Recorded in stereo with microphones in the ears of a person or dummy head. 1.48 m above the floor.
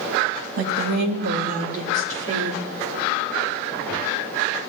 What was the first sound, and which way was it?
A woman speaking, 75° right (ahead or behind).